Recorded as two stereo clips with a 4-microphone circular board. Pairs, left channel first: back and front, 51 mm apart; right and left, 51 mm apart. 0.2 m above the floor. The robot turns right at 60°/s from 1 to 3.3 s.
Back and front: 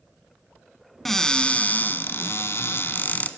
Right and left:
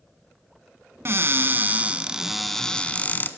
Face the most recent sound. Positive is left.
turn(degrees=-130)